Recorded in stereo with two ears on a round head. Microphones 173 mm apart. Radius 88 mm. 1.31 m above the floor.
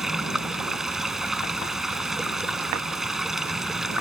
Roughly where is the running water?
Centre.